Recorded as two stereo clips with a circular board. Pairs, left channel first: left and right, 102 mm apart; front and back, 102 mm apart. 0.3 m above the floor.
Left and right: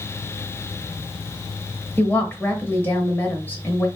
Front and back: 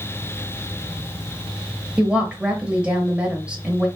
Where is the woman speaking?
120° left, 0.9 m.